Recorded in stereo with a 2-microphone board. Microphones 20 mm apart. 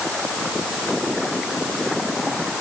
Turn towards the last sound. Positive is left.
No sound to turn to.